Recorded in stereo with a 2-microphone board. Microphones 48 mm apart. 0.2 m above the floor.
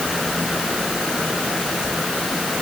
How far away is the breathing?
I don't hear breathing.